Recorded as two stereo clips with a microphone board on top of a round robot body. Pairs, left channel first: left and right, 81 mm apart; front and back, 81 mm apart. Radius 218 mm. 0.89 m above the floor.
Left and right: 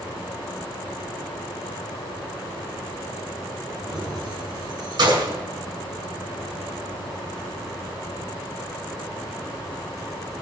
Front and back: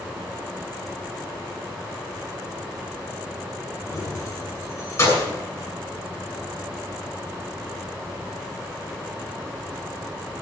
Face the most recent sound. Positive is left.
turn(degrees=-60)